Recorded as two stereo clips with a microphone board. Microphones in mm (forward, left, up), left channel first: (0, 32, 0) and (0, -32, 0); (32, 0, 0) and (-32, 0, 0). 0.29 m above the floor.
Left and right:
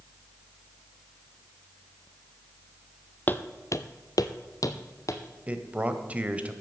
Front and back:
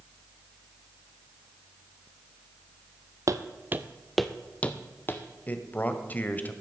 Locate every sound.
3.3 s footsteps: 150° left, 0.7 m; by 5.2 s 55° left, 1.1 m
5.5 s a man speaking: 40° right, 1.0 m